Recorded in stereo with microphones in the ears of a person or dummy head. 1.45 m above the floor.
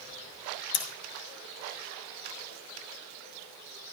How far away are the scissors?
About 2 m.